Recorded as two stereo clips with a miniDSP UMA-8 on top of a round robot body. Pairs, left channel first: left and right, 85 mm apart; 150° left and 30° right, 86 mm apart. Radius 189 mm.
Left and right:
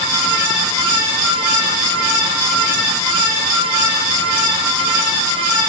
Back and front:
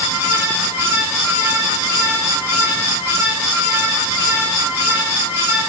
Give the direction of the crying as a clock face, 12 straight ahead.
No crying in this recording.